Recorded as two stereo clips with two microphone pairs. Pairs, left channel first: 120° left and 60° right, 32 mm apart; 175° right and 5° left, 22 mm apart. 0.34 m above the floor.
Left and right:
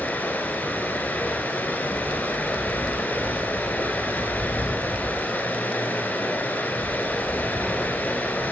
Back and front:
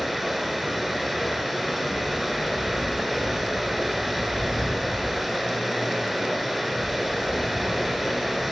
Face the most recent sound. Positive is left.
turn(degrees=85)